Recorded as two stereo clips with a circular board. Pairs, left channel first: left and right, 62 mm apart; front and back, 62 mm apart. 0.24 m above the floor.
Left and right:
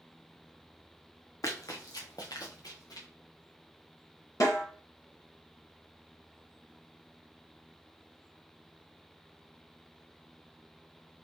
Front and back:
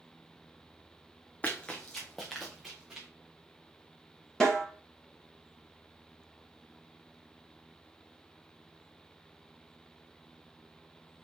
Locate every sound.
1.4 s running footsteps: 65° left, 0.8 m; by 3.1 s 100° left, 1.6 m
4.4 s a snare drum: 80° left, 1.9 m